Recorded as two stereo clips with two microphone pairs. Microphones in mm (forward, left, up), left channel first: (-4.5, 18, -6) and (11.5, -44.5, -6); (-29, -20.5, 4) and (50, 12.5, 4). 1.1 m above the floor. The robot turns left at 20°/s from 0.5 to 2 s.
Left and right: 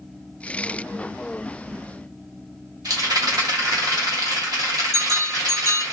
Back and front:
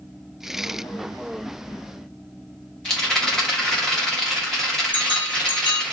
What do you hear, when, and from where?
2.9 s a rattle: 75° right, 1.0 m
4.9 s a bell: 90° right, 1.1 m